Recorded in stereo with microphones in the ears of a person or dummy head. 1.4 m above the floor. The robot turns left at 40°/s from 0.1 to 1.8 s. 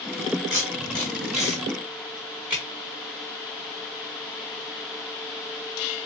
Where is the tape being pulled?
15° left (ahead or behind), 1.2 m; by 2.6 s 10° right (ahead or behind), 1.2 m.